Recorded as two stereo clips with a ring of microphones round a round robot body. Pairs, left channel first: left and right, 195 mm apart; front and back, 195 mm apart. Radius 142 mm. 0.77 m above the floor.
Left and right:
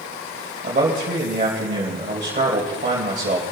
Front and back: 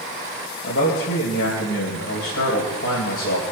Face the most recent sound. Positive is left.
turn(degrees=-45)